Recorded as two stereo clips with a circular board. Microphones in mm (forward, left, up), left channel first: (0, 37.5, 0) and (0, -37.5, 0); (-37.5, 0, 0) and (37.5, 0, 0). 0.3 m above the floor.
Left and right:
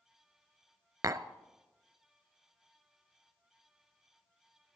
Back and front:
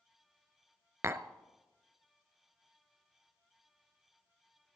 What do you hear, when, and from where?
1.0 s tapping: 50° right, 0.7 m